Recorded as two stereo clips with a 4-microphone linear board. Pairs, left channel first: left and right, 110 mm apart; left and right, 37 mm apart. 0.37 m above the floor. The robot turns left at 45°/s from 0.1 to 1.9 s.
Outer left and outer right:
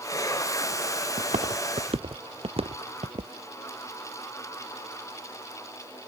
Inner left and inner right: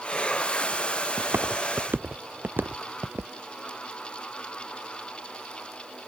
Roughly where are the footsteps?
Right.